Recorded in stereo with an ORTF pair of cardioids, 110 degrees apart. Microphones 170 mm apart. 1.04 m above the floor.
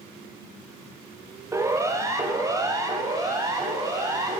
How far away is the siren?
About 3 m.